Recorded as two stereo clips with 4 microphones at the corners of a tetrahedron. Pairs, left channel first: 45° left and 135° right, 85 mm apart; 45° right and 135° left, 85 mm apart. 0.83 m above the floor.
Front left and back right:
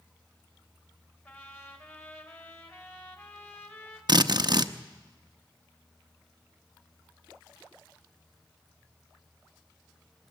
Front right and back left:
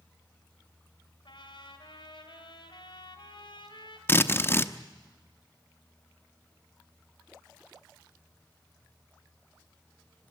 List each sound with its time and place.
1.2 s a trumpet: 20° right, 3.5 m
4.1 s a drill: 105° right, 0.8 m